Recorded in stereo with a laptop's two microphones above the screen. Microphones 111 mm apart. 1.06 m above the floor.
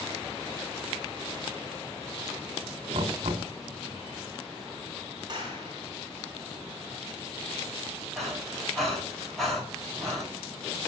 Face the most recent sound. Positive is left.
turn(degrees=0)  # may be behind; listen again after turning